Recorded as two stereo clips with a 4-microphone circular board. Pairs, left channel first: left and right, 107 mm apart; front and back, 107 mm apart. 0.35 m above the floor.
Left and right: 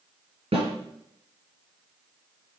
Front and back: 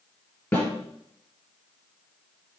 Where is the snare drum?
65° right, 5.5 m.